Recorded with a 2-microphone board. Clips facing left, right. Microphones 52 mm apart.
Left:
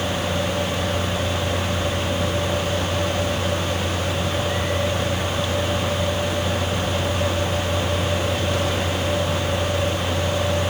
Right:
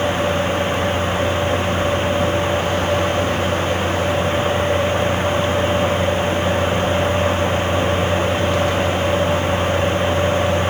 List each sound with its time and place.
Only background noise.